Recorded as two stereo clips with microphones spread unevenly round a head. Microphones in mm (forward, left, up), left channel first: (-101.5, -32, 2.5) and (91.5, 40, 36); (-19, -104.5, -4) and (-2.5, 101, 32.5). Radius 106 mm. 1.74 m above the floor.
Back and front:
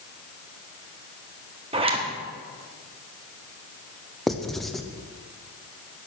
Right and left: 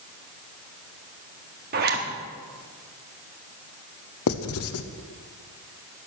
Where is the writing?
65° right, 0.7 m.